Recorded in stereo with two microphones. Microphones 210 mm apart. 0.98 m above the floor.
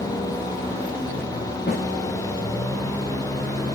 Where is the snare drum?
55° left (ahead or behind), 1.8 m.